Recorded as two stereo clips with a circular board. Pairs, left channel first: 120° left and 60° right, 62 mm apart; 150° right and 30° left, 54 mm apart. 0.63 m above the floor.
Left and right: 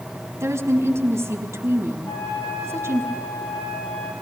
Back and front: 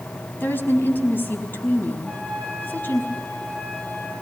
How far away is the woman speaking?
About 4.5 m.